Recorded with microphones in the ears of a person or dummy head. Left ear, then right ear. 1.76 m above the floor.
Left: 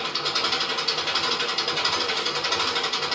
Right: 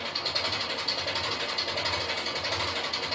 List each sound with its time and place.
0.0 s an engine running: 60° left (ahead or behind), 2.5 m